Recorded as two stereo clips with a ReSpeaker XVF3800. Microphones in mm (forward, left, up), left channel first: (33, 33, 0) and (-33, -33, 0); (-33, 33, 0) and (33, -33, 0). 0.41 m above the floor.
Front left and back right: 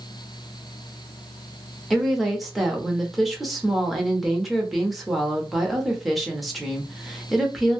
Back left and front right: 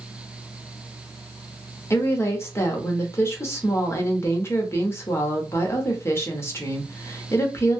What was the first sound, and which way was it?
A woman speaking, 135° left.